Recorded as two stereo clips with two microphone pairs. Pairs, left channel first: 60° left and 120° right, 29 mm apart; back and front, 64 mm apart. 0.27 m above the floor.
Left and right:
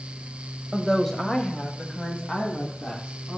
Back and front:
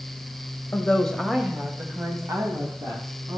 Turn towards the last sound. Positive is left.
turn(degrees=5)